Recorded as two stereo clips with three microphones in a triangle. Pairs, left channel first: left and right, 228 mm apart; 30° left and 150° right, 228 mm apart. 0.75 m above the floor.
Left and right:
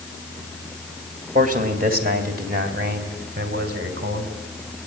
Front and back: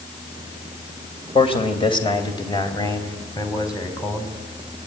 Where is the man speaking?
35° right, 2.5 m; by 4.3 s 45° right, 4.5 m.